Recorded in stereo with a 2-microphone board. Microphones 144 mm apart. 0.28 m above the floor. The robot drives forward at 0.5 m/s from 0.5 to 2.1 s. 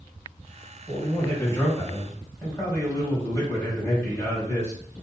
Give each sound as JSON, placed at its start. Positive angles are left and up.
{"t": 0.9, "sound": "a man speaking", "side_deg": 20, "distance_m": 1.2}